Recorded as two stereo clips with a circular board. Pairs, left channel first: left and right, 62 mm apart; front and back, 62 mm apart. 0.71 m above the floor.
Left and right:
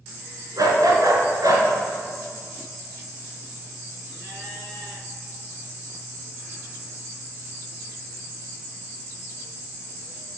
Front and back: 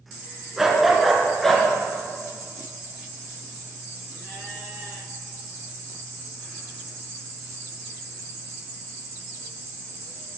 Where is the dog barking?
95° right, 1.8 m; by 1.7 s 80° right, 2 m.